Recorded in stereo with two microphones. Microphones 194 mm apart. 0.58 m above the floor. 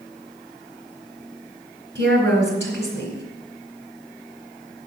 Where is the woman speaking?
75° right (ahead or behind), 3 m.